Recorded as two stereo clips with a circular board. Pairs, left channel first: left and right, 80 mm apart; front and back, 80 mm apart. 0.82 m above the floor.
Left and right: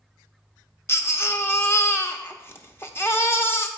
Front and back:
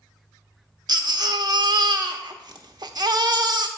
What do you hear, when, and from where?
0.9 s a baby crying: 150° left, 0.8 m